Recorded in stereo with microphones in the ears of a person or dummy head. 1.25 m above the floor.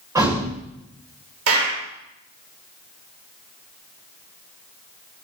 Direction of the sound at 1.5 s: 65° right (ahead or behind).